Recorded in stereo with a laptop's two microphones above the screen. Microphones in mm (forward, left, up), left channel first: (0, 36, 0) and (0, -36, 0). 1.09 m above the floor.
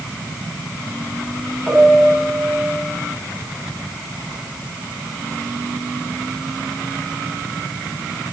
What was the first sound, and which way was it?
A piano, centre (ahead or behind).